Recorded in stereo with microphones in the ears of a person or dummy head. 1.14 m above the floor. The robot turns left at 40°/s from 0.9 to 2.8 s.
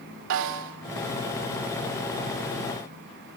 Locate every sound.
0.3 s a snare drum: 70° right (ahead or behind), 2.5 m